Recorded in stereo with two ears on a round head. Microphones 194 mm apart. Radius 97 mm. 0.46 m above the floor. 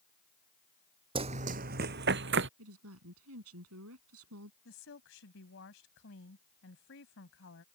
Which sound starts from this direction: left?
A woman speaking, at 4.7 s.